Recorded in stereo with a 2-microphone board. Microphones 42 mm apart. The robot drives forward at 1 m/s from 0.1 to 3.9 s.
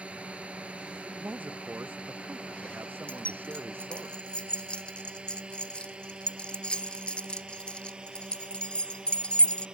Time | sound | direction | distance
0.0 | a drone | 30° right (ahead or behind) | ?
1.1 | a man speaking | 45° right (ahead or behind) | ?
3.1 | keys jangling | 30° left (ahead or behind) | ?